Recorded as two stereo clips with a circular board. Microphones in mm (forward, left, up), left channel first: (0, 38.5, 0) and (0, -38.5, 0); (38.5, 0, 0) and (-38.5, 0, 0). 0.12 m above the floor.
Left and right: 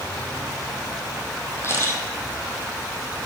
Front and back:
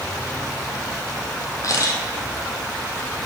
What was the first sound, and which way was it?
A camera shutter, 35° left.